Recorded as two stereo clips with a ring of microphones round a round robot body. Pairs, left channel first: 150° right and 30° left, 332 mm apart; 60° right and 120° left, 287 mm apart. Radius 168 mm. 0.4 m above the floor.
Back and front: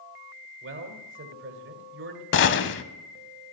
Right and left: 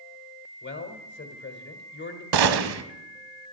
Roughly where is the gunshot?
Behind left.